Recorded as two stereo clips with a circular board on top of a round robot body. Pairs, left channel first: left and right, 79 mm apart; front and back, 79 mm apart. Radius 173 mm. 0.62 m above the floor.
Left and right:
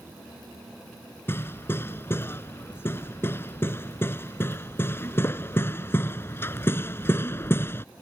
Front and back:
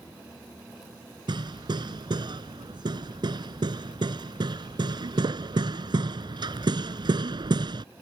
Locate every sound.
1.3 s hammering: 150° left